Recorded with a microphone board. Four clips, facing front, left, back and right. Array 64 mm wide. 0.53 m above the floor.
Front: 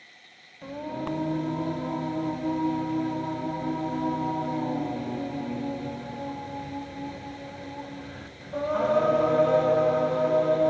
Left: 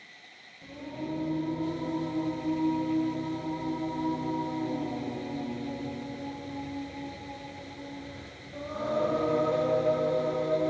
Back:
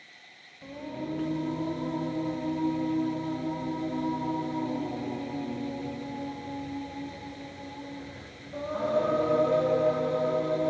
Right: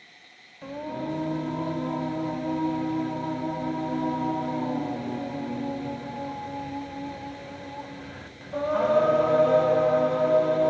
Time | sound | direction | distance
0.6 | singing | 45° right | 4 m